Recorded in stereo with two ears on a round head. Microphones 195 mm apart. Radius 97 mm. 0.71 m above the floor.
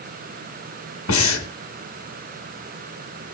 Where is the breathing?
70° left (ahead or behind), 3 m.